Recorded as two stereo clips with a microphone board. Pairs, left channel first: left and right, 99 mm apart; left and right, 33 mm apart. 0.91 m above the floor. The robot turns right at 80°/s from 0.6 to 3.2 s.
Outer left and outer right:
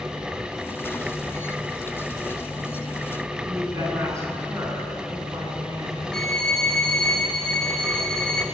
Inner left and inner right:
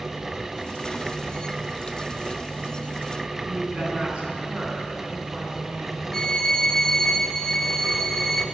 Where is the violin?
5° left (ahead or behind), 1.9 m.